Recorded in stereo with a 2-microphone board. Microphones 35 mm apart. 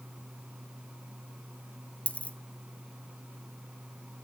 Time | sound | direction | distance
2.1 | a dropped coin | 40° left (ahead or behind) | 0.8 m